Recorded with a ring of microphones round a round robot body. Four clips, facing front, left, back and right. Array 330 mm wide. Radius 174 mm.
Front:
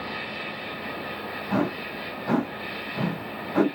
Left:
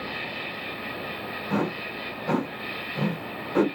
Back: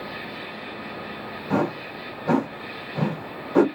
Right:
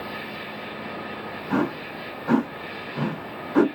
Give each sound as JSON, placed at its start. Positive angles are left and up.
{"t": 0.0, "sound": "an insect", "azimuth_deg": 85, "distance_m": 1.4}
{"t": 1.5, "sound": "a whoosh", "azimuth_deg": 165, "distance_m": 3.5}